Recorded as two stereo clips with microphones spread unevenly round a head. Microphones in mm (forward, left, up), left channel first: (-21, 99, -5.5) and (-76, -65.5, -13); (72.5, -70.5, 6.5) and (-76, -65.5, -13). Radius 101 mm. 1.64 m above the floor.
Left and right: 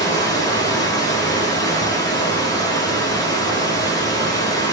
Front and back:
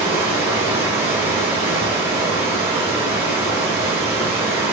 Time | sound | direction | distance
0.0 | running water | 105° left | 1.0 m